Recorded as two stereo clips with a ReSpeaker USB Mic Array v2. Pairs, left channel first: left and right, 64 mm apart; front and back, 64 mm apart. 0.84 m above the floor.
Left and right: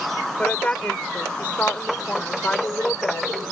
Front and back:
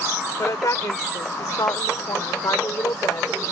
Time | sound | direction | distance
0.4 | a woman speaking | 20° left | ?